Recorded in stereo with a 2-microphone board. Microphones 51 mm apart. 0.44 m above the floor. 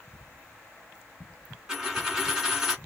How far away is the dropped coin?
About 1.8 m.